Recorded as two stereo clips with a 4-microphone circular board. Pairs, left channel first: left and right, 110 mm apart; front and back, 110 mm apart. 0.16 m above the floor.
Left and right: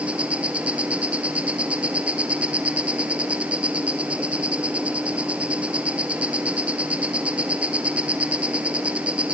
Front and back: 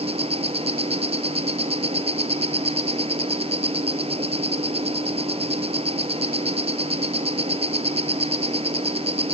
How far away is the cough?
I don't hear a cough.